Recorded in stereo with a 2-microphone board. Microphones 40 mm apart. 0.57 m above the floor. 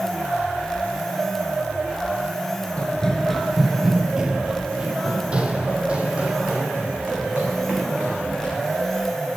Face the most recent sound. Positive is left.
turn(degrees=-35)  # may be behind; listen again after turning